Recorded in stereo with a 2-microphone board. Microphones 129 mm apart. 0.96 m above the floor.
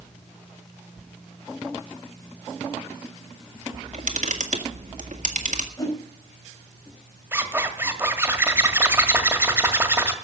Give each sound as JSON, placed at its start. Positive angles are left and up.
{"t": 3.7, "sound": "a camera shutter", "side_deg": -75, "distance_m": 1.8}
{"t": 5.8, "sound": "a whoosh", "side_deg": 30, "distance_m": 5.0}
{"t": 7.3, "sound": "a zipper", "side_deg": -20, "distance_m": 1.7}